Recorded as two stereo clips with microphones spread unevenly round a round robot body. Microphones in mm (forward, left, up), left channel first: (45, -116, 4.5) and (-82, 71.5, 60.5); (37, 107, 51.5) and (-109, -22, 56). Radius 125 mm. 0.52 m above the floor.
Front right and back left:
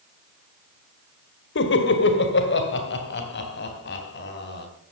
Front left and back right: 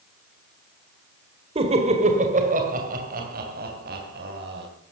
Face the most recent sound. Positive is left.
turn(degrees=-95)